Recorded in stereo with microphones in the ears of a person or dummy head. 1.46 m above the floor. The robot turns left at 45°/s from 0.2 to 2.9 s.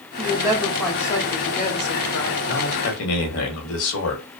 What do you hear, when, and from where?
0.2 s a woman speaking: 155° right, 0.9 m; by 2.4 s 110° left, 0.9 m
2.5 s a man speaking: 65° left (ahead or behind), 1.0 m; by 4.4 s 75° left (ahead or behind), 1.0 m